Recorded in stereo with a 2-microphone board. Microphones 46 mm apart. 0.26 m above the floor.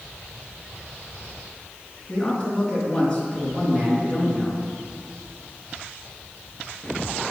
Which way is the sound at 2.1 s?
30° left (ahead or behind).